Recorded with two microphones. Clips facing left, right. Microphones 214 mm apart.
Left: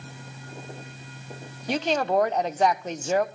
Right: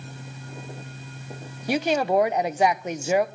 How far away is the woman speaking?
About 0.7 m.